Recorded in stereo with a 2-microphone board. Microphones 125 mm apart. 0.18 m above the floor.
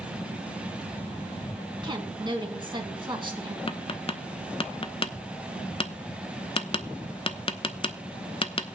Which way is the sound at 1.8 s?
40° right (ahead or behind).